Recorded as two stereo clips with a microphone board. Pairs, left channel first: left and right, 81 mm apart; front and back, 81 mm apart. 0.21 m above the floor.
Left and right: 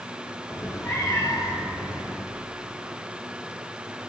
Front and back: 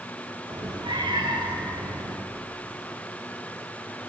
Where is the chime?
No chime in this recording.